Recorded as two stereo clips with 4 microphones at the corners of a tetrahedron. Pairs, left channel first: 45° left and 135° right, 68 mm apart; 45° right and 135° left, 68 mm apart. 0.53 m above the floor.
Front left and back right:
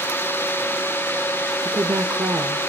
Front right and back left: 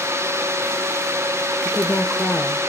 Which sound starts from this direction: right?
A woman speaking, at 1.6 s.